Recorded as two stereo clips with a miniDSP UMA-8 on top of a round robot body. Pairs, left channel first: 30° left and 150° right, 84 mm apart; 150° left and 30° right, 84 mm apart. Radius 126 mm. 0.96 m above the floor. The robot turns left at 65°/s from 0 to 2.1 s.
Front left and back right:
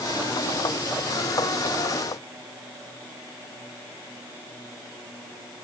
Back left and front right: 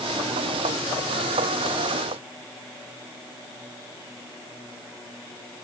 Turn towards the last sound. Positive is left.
No sound to turn to.